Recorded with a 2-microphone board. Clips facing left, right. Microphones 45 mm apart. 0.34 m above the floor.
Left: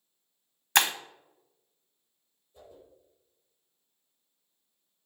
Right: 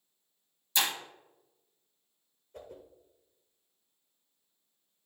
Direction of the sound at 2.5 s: 65° right (ahead or behind).